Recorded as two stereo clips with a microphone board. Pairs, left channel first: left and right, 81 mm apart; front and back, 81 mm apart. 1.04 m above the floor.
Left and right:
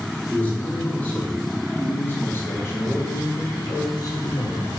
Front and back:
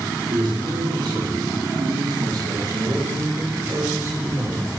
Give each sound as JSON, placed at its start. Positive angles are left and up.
{"t": 0.3, "sound": "a man speaking", "azimuth_deg": 165, "distance_m": 3.5}